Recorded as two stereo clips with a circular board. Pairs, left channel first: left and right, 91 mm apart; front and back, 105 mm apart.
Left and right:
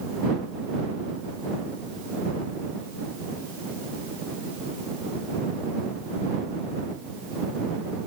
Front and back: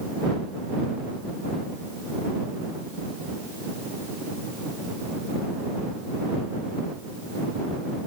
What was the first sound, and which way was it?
Only background noise.